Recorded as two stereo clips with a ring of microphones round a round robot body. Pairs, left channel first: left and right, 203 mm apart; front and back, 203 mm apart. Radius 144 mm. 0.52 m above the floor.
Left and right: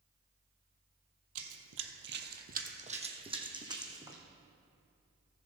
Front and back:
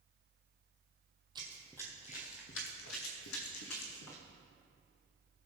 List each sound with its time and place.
1.4 s running footsteps: 105° right, 1.1 m; by 4.2 s 15° right, 2.5 m